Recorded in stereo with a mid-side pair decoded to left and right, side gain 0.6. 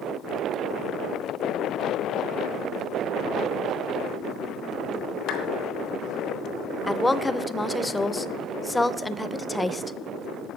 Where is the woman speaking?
10° left, 0.6 m.